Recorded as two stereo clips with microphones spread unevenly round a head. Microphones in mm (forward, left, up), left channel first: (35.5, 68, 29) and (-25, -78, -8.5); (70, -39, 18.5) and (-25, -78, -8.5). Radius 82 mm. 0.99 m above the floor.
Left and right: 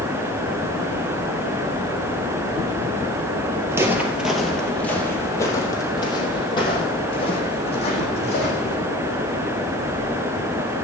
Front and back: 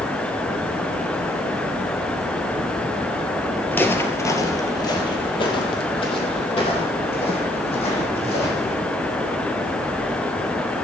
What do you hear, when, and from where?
3.7 s footsteps: 30° right, 1.4 m; by 8.7 s 25° left, 3.5 m